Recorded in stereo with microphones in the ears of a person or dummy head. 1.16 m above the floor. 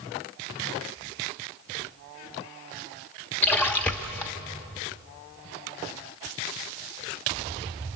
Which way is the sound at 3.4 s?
20° left (ahead or behind).